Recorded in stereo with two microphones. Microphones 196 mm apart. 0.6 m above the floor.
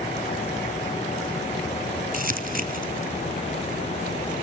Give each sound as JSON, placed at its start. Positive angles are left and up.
{"t": 2.1, "sound": "crumpling", "side_deg": -45, "distance_m": 0.9}